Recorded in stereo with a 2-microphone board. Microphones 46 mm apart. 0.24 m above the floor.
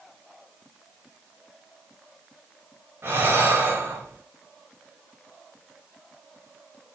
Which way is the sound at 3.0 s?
60° right (ahead or behind).